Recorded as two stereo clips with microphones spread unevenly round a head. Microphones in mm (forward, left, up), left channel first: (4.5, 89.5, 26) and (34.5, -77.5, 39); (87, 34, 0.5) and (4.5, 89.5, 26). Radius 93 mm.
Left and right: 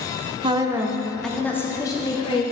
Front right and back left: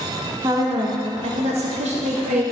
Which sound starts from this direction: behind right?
A woman speaking, at 0.4 s.